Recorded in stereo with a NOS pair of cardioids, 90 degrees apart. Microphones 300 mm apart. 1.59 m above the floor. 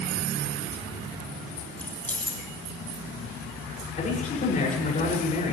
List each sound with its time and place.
1.8 s keys jangling: 5° left, 1.9 m
4.0 s a man speaking: 25° left, 8 m